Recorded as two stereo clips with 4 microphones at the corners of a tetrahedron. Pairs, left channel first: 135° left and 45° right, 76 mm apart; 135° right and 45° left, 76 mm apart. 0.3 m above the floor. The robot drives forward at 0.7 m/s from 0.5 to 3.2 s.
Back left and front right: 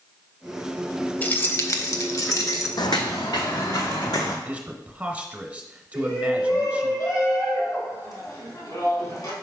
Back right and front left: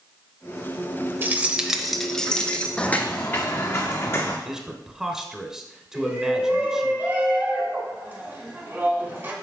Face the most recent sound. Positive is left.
turn(degrees=100)